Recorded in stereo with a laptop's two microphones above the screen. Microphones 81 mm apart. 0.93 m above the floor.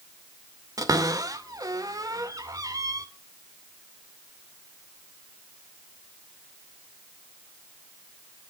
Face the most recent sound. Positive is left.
turn(degrees=-50)  # may be behind; listen again after turning